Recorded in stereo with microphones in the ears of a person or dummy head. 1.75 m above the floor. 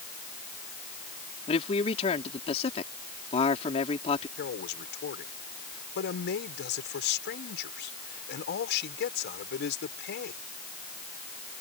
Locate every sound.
1.5 s a man speaking: 30° left (ahead or behind)
4.4 s a man speaking: 60° left (ahead or behind)